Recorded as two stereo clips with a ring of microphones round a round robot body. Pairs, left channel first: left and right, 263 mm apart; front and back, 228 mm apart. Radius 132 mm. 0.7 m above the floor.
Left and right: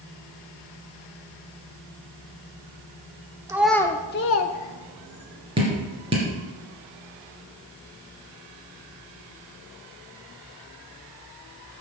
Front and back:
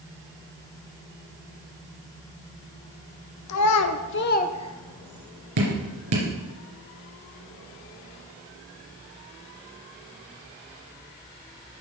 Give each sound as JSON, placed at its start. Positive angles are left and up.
{"t": 3.5, "sound": "a child speaking", "azimuth_deg": -10, "distance_m": 1.0}
{"t": 5.6, "sound": "dripping", "azimuth_deg": -160, "distance_m": 2.5}